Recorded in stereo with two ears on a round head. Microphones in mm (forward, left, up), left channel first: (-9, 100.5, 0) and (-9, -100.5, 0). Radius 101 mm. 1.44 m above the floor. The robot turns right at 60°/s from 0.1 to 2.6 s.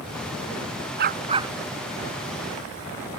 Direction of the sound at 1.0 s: 45° right.